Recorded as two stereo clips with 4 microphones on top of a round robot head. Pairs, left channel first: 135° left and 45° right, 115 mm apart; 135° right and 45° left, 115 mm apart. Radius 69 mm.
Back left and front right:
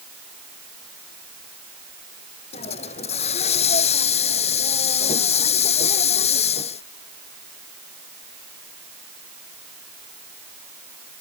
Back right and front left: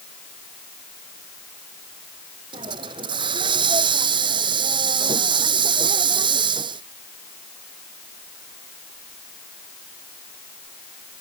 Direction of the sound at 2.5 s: 100° left.